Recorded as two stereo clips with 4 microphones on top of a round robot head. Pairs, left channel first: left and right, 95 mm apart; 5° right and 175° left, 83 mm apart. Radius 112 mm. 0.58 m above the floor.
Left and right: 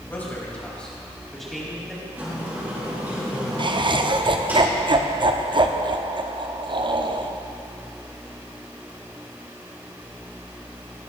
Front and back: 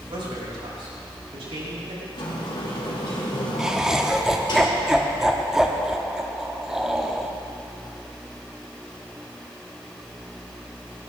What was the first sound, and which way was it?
A man speaking, 160° left.